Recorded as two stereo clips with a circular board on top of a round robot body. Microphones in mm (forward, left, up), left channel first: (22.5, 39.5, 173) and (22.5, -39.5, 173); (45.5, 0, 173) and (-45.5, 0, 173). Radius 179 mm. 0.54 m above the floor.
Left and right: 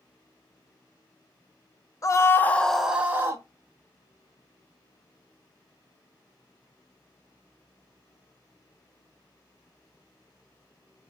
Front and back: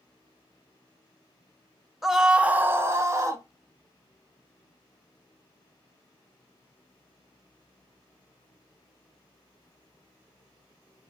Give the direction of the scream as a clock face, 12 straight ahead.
9 o'clock.